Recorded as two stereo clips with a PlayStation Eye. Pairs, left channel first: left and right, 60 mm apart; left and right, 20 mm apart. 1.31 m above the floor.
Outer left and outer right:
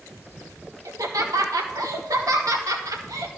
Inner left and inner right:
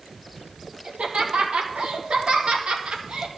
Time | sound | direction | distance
0.8 | laughter | 80° right | 1.8 m